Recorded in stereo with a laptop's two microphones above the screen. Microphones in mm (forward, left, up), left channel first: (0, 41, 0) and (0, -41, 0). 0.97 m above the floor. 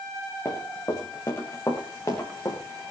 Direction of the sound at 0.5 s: 35° left (ahead or behind).